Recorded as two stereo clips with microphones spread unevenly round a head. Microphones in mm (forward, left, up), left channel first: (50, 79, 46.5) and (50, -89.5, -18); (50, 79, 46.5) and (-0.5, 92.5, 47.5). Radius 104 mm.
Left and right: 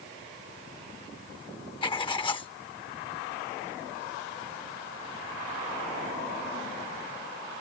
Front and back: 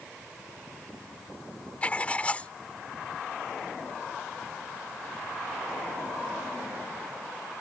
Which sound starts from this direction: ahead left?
Writing, at 1.8 s.